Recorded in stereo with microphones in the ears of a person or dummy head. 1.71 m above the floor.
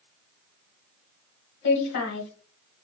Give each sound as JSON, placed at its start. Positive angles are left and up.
{"t": 1.6, "sound": "a woman speaking", "side_deg": 60, "distance_m": 1.1}